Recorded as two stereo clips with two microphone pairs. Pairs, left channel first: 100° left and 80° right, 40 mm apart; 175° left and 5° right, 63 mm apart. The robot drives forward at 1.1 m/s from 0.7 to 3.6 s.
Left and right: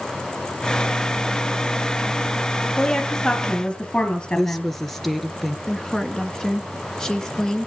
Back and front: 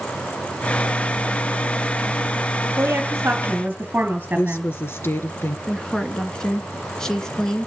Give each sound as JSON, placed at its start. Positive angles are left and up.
{"t": 2.7, "sound": "a woman speaking", "azimuth_deg": 35, "distance_m": 3.0}
{"t": 4.3, "sound": "a woman speaking", "azimuth_deg": 180, "distance_m": 1.5}
{"t": 5.7, "sound": "a woman speaking", "azimuth_deg": 115, "distance_m": 1.6}